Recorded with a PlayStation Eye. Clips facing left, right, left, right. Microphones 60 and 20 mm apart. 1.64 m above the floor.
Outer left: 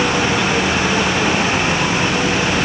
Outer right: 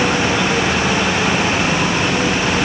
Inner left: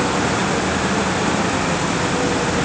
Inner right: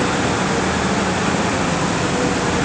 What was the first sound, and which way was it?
Only background noise.